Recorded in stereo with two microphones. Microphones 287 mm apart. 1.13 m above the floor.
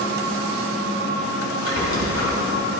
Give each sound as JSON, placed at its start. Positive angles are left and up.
{"t": 1.6, "sound": "a squeak", "side_deg": 65, "distance_m": 2.5}